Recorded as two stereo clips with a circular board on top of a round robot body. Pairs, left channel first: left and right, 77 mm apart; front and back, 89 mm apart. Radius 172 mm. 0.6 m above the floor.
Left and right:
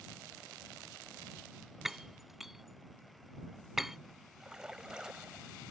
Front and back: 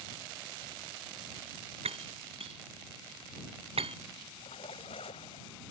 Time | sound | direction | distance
1.9 | breaking glass | 175° right | ?
4.4 | a splash | 10° right | ?